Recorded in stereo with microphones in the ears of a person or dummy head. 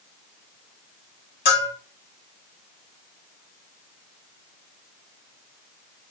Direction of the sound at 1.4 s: 55° left (ahead or behind).